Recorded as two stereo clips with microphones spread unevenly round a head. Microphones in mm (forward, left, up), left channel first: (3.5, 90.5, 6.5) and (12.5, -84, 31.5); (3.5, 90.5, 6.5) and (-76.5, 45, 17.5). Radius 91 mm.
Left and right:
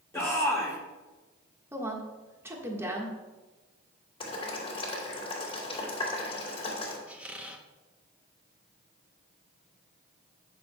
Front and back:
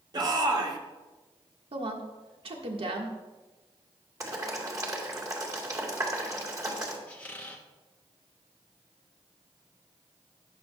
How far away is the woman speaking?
About 1.5 m.